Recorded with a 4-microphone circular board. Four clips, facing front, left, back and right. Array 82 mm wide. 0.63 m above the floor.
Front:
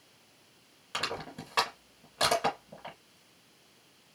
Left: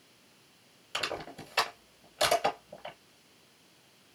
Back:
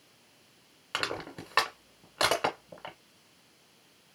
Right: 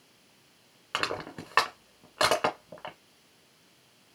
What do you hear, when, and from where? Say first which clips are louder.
0.9 s crushing: right 4 dB, back 2 dB; 110° right, 2.5 m